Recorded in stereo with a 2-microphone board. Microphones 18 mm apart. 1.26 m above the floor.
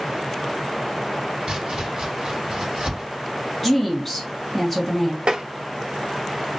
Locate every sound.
1.5 s chopping: 40° right (ahead or behind), 1.7 m
3.6 s a woman speaking: 5° left (ahead or behind), 1.4 m
5.3 s tapping: 70° right (ahead or behind), 0.6 m